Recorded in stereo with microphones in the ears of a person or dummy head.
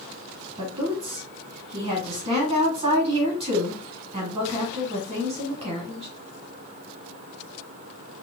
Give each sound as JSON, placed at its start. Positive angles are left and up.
{"t": 0.6, "sound": "a woman speaking", "side_deg": -25, "distance_m": 1.2}